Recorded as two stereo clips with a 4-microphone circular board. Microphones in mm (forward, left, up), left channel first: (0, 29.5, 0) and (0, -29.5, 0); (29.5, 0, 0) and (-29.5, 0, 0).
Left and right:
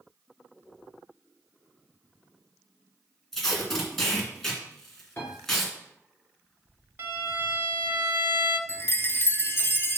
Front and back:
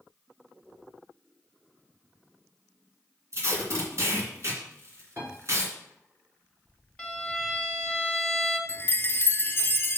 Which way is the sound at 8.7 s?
50° left.